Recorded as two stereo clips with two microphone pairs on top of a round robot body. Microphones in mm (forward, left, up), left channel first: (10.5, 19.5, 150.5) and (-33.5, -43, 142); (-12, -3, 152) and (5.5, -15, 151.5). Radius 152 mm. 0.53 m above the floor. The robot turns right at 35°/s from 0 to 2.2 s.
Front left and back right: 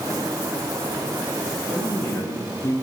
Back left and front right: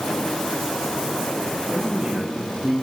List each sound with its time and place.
1.7 s a man speaking: 20° right, 8 m; by 2.8 s straight ahead, 8 m